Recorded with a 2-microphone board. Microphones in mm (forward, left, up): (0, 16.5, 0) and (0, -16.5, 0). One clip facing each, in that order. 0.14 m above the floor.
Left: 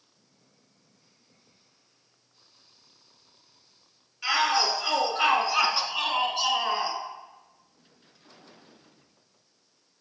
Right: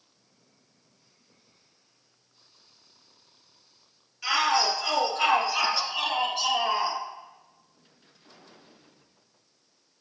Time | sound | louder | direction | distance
4.2 | a shout | even | 15° left (ahead or behind) | 2 m